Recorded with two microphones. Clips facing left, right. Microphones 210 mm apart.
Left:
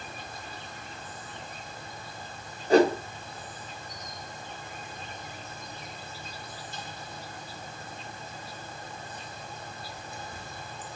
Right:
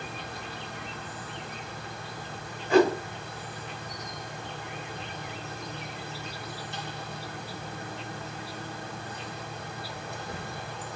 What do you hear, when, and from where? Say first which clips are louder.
0.0 s an insect: right 4 dB; 70° right (ahead or behind), 1.1 m
2.7 s a whoosh: left 1 dB; 40° left (ahead or behind), 2.5 m